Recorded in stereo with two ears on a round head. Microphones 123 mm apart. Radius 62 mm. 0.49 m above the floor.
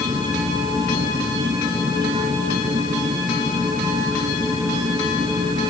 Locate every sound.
0.0 s an insect: 30° right (ahead or behind)